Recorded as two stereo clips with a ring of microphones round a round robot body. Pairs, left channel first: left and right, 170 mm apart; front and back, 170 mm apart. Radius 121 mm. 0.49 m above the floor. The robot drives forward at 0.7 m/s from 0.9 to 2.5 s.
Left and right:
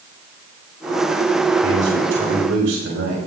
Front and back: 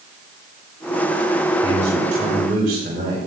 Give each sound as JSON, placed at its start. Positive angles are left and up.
{"t": 1.6, "sound": "a man speaking", "azimuth_deg": -115, "distance_m": 5.0}